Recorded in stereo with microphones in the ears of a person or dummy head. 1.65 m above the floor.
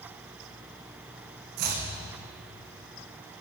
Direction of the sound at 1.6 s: 55° right (ahead or behind).